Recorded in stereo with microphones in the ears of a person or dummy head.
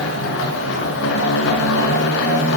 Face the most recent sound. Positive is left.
turn(degrees=70)  # may be behind; listen again after turning